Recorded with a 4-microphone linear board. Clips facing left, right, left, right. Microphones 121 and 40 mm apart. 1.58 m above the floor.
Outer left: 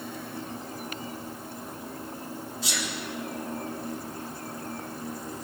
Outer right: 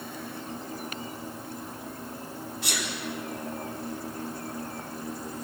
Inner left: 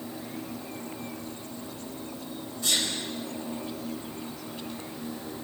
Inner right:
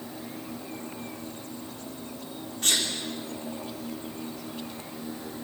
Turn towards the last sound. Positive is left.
turn(degrees=-65)  # may be behind; listen again after turning